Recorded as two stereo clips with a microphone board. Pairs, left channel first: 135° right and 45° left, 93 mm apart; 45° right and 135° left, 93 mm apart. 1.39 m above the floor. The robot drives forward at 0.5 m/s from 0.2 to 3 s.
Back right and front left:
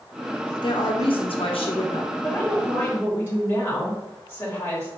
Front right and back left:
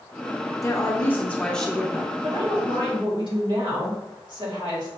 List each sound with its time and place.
0.6 s a woman speaking: 100° right, 0.8 m; by 2.1 s 140° right, 1.2 m
2.2 s a woman speaking: 155° left, 2 m; by 4.9 s 160° left, 2.5 m